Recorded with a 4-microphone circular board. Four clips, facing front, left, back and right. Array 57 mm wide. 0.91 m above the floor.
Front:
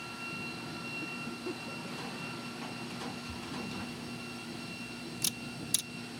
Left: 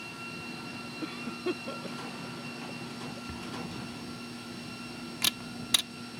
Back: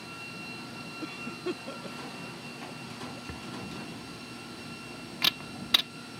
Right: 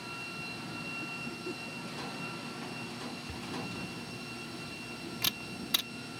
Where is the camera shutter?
170° left.